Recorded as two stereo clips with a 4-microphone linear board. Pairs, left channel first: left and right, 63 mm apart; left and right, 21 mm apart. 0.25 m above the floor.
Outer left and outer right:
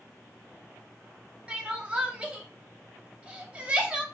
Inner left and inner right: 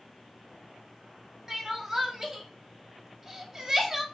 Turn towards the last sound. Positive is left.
turn(degrees=-20)  # may be behind; listen again after turning